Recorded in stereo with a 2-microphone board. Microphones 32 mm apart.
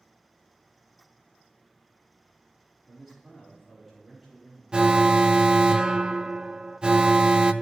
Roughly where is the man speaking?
Centre.